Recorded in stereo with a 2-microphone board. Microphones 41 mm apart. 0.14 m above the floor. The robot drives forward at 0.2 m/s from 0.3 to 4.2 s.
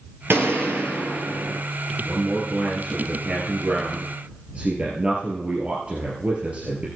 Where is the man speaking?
30° right (ahead or behind), 3.5 m; by 6.9 s 35° right (ahead or behind), 3 m.